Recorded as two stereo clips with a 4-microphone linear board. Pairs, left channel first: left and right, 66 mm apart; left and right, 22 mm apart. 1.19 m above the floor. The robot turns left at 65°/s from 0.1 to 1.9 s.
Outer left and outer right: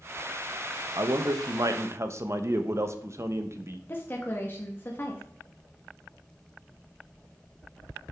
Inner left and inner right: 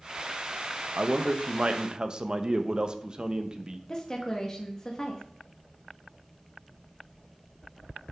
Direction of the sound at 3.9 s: 35° left (ahead or behind).